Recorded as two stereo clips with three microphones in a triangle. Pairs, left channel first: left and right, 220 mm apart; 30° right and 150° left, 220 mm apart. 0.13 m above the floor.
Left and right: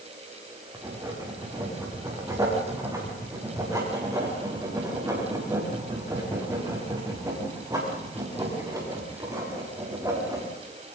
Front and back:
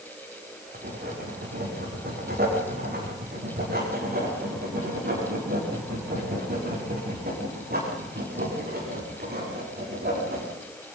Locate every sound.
0.7 s writing: 165° right, 7.5 m